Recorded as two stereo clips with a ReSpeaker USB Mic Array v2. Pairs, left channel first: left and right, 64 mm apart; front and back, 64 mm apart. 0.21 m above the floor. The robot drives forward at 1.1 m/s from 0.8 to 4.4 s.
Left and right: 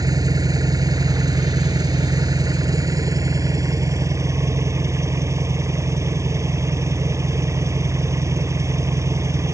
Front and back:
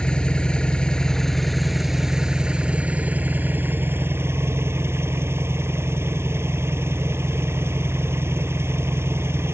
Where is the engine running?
75° right; by 9.5 s 130° right.